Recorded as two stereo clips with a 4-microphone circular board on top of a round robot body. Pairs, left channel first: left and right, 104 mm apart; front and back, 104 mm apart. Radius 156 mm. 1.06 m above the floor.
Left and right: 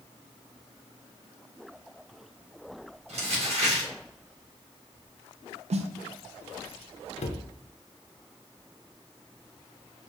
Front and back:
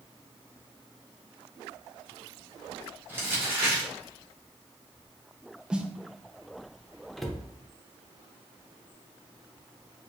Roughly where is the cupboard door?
Left.